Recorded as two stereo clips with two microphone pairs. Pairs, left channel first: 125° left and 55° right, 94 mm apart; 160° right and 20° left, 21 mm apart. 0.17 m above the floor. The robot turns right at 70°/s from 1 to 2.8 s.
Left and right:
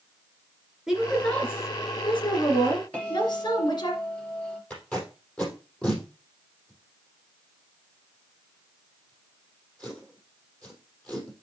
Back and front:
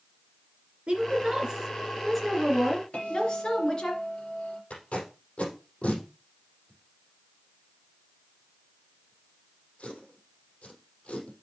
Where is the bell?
160° right, 3.5 m.